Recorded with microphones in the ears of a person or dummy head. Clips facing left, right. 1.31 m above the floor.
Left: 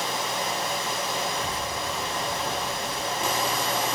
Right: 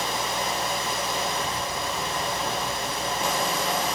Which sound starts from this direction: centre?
A child speaking, at 1.2 s.